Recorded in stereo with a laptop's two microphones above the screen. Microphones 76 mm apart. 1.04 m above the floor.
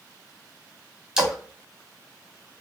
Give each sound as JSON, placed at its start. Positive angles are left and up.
{"t": 1.2, "sound": "a splash", "side_deg": -10, "distance_m": 1.9}